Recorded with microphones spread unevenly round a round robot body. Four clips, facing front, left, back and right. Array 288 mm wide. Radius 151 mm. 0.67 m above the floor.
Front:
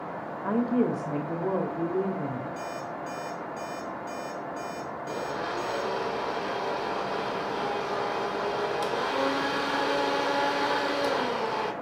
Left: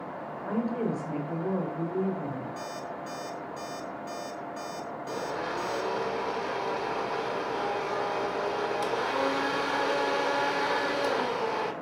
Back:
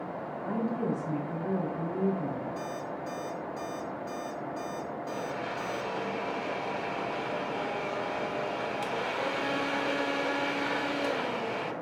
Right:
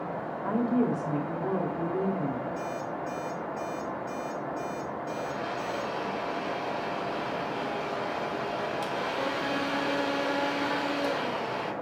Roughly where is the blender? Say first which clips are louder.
Left 3 dB, front 5 dB; ahead left.